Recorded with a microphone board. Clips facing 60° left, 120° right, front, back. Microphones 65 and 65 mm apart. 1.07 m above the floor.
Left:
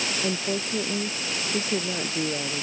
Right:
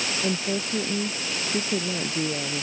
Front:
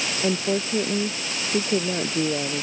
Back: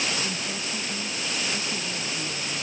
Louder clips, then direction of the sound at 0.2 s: Right 2 dB, front 8 dB; 20° right.